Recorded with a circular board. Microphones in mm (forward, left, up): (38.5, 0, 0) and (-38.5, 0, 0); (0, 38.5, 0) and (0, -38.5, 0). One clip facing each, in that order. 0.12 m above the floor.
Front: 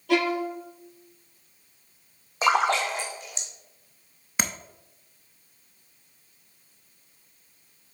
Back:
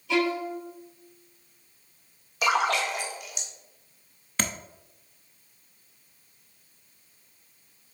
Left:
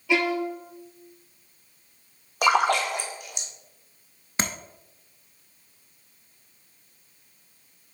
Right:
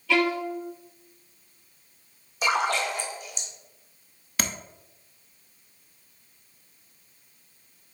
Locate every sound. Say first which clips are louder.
0.1 s a violin: front 2 dB, even; 20° left, 1.2 m
2.4 s a splash: front 2 dB, left 4 dB; 60° left, 1.4 m
4.4 s tapping: even, left 2 dB; 65° left, 0.6 m